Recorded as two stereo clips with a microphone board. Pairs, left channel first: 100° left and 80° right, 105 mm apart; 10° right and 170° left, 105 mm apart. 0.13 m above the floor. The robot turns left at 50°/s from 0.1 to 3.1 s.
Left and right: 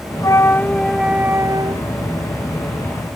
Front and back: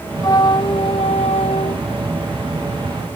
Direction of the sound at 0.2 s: 45° left.